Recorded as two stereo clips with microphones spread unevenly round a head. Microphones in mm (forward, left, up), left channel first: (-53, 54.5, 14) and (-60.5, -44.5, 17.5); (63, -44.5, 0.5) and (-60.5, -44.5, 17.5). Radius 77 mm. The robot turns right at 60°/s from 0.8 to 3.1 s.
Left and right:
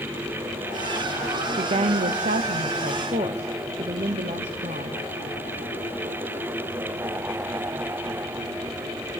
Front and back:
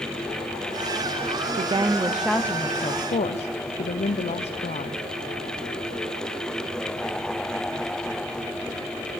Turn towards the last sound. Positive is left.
turn(degrees=-40)